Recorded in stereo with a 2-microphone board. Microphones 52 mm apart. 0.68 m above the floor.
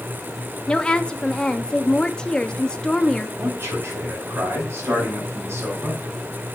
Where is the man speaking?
55° right (ahead or behind), 5 m.